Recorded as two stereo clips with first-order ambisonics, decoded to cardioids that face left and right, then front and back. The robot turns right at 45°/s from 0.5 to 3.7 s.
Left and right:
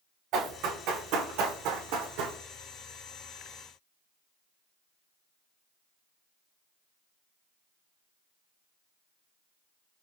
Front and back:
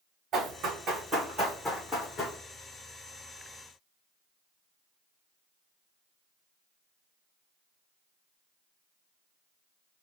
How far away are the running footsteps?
About 2.5 m.